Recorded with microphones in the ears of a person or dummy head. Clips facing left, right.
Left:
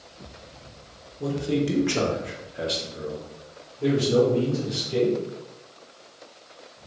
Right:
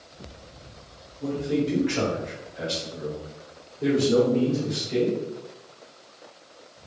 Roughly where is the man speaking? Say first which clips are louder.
Even; left.